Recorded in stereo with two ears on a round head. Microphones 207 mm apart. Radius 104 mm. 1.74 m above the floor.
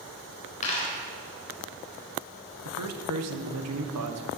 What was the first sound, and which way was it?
A dropped coin, 35° left (ahead or behind).